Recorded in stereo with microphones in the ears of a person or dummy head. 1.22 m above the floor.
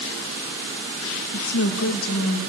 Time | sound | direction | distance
1.3 | a woman speaking | 75° left (ahead or behind) | 1.5 m